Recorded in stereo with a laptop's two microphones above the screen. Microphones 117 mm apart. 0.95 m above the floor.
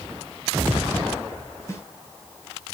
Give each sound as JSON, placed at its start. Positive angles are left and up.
{"t": 1.7, "sound": "a snare drum", "side_deg": 25, "distance_m": 2.5}